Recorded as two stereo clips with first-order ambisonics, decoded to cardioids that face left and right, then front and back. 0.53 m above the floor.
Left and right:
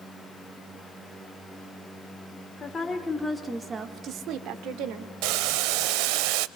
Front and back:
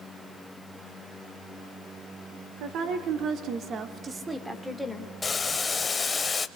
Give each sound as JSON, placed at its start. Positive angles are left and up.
{"t": 2.6, "sound": "a woman speaking", "azimuth_deg": 155, "distance_m": 1.8}
{"t": 5.2, "sound": "boiling", "azimuth_deg": -75, "distance_m": 0.8}